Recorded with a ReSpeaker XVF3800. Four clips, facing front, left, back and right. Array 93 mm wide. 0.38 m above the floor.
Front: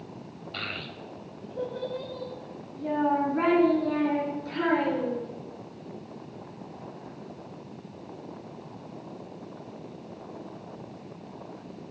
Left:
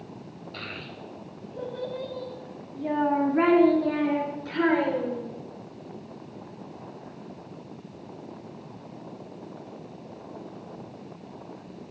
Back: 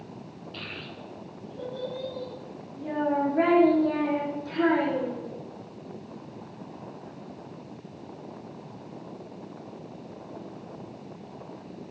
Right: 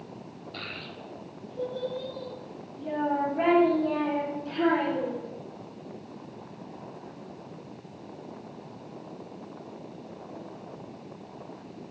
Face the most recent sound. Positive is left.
turn(degrees=70)